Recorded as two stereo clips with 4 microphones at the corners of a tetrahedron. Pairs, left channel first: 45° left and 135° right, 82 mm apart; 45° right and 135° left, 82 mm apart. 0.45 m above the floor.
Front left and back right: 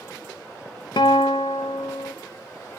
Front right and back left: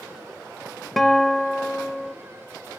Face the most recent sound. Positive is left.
turn(degrees=40)